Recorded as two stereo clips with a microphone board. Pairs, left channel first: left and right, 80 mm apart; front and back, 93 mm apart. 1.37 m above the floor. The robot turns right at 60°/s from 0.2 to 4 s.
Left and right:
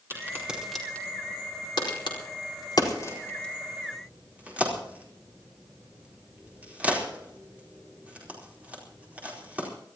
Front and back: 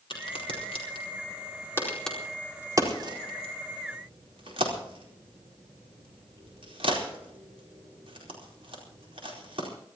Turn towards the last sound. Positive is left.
turn(degrees=-160)